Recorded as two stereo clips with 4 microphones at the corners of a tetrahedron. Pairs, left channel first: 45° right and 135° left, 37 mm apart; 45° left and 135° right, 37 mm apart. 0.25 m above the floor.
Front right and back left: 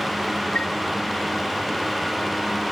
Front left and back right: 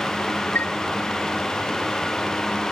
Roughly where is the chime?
Ahead.